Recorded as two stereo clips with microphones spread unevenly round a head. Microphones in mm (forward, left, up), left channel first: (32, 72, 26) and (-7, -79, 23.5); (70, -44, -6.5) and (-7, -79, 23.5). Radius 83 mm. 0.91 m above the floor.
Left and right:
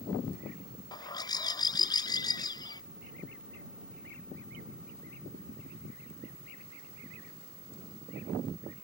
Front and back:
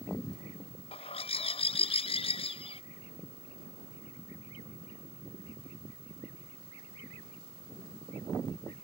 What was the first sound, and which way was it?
A bird, 10° left.